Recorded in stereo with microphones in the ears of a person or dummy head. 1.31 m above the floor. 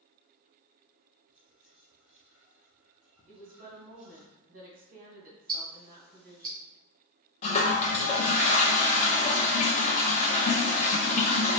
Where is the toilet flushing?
40° left (ahead or behind), 0.7 m.